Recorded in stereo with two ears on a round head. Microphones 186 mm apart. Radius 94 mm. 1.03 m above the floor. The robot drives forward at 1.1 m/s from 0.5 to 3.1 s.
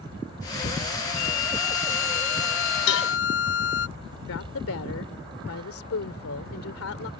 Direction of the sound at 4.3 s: 80° left.